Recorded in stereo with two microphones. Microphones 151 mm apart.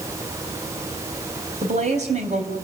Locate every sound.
1.6 s a woman speaking: 50° right (ahead or behind), 4 m